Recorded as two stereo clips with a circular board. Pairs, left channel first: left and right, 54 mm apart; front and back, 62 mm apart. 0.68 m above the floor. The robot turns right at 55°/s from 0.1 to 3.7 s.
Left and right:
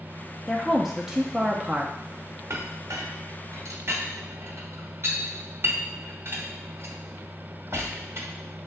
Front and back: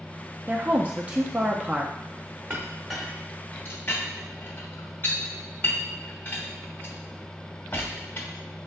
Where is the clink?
120° right, 1.1 m; by 8.3 s 55° right, 1.1 m.